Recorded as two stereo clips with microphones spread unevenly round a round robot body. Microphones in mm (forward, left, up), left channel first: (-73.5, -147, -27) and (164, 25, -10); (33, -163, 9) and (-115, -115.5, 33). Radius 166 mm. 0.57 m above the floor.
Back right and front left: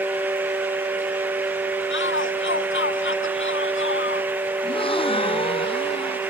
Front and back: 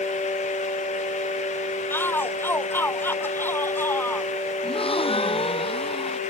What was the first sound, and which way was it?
A shout, 95° right.